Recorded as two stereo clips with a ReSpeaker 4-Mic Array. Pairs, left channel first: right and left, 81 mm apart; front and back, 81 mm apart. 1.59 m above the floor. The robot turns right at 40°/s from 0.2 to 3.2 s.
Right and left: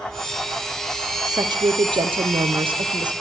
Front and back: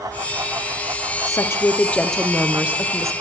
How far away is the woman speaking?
About 0.8 m.